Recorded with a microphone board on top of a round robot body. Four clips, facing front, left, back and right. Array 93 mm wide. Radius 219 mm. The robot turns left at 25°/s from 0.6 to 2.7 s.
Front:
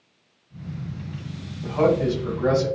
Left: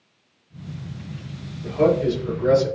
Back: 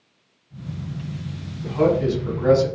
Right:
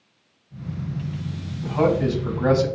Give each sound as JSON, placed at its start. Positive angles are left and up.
{"t": 1.6, "sound": "a man speaking", "azimuth_deg": -50, "distance_m": 4.0}